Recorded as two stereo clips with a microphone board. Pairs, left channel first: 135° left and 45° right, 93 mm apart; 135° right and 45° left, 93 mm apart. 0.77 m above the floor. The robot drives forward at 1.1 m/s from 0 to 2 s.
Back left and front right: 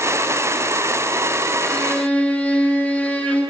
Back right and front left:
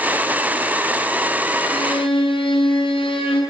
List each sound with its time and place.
1.6 s a violin: 150° right, 6.5 m